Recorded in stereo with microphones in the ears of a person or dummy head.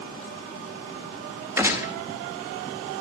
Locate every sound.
1.6 s a gunshot: 10° right (ahead or behind), 2 m